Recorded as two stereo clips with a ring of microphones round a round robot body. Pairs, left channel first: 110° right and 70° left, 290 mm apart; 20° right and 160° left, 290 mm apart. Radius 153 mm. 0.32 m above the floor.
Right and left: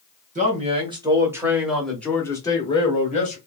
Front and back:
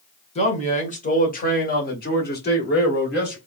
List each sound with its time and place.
0.3 s a man speaking: 30° left, 1.7 m; by 3.4 s 60° right, 1.9 m